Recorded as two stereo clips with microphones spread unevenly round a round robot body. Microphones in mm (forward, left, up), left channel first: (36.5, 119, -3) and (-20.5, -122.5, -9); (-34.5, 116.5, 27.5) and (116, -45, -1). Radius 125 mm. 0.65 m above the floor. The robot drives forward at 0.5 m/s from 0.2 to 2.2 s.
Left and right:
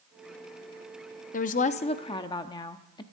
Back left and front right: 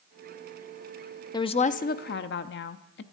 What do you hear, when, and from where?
1.3 s a woman speaking: 65° left, 0.5 m; by 3.0 s 145° left, 0.6 m